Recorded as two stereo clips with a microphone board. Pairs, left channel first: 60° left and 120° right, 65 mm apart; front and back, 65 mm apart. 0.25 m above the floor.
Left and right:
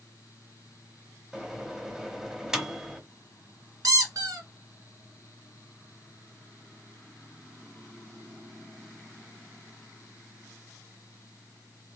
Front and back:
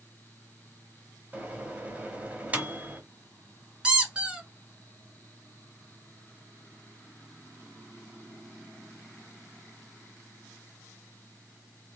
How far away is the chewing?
I don't hear chewing.